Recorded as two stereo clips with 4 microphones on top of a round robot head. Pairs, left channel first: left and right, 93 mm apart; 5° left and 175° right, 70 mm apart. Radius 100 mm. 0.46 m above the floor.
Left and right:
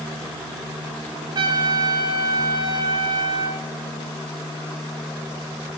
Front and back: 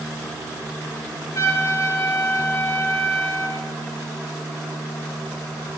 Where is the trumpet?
55° right, 0.9 m.